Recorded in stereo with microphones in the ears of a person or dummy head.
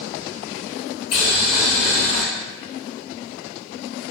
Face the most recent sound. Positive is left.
turn(degrees=40)  # may be behind; listen again after turning